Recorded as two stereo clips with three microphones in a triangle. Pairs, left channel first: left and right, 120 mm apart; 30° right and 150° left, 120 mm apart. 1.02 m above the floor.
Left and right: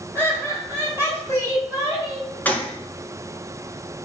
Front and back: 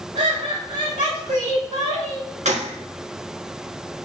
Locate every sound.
0.1 s laughter: 165° left, 4 m; by 2.3 s 145° left, 5 m
2.5 s a gunshot: 165° left, 1.5 m